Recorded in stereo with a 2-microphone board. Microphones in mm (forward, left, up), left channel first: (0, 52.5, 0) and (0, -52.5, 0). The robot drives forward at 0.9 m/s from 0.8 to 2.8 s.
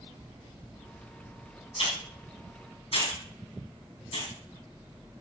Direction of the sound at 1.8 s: 70° left (ahead or behind).